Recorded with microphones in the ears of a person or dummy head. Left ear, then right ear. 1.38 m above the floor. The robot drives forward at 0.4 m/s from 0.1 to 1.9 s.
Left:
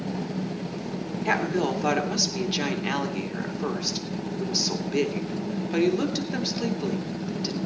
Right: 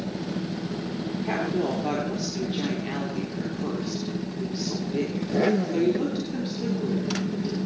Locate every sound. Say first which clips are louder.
1.2 s a woman speaking: left 3 dB; 45° left (ahead or behind), 2.5 m; by 7.6 s 50° left (ahead or behind), 2.5 m